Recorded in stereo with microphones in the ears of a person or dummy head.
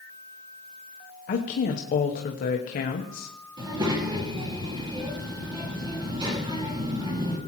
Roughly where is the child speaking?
Right.